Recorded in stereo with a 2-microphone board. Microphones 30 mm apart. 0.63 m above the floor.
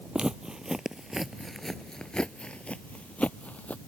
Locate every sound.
0.1 s footsteps: 35° right (ahead or behind); by 3.8 s 60° left (ahead or behind)